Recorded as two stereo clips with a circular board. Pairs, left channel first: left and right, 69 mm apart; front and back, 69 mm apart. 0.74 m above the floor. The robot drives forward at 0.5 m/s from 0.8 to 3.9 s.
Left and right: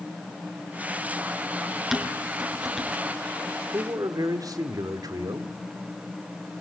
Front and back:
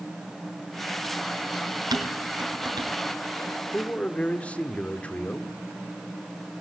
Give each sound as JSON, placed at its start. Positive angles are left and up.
{"t": 1.9, "sound": "dishes clattering", "azimuth_deg": -175, "distance_m": 4.5}
{"t": 3.7, "sound": "a man speaking", "azimuth_deg": -70, "distance_m": 2.0}